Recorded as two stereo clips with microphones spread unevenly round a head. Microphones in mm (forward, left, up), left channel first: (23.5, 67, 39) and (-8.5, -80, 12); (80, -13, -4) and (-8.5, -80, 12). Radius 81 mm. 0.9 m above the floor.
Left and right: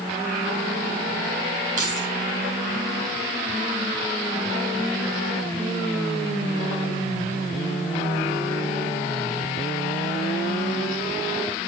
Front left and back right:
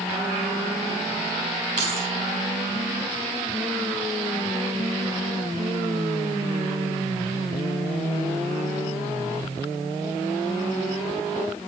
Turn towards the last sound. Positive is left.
turn(degrees=-145)